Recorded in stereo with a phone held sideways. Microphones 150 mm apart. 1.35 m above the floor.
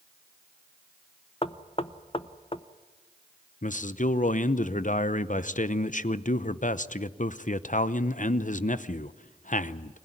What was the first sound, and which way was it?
Knocking, 40° left (ahead or behind).